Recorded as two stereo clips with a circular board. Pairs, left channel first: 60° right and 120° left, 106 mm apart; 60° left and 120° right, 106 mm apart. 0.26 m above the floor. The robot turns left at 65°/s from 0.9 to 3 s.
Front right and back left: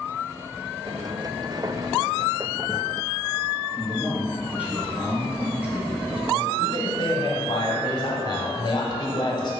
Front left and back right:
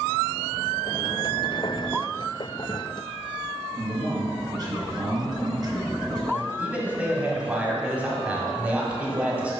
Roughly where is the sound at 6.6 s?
Ahead right.